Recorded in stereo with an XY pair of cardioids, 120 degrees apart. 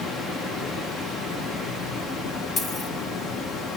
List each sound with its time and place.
0.0 s running water: 65° left, 1.5 m
2.6 s a dropped coin: 45° left, 4 m